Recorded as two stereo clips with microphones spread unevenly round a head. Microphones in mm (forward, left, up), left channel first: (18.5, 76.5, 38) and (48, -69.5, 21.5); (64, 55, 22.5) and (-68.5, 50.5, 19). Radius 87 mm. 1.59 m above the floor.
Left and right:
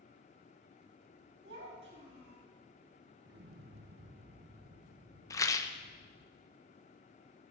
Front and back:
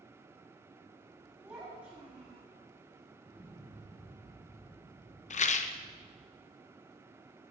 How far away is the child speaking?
About 7 m.